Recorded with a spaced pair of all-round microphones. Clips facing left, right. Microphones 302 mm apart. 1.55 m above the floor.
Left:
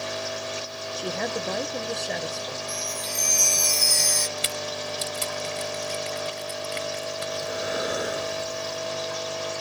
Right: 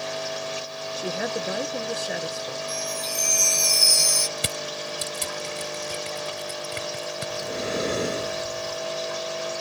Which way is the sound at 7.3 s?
30° right (ahead or behind).